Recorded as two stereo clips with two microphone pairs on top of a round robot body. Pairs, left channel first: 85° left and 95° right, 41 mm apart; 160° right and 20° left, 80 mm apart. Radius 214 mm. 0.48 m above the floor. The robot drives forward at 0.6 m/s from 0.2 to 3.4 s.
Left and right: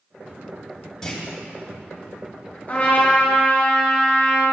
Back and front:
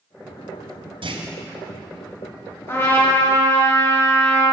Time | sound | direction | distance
1.0 | a clunk | 10° left | 2.0 m
2.7 | a trumpet | 145° left | 5.5 m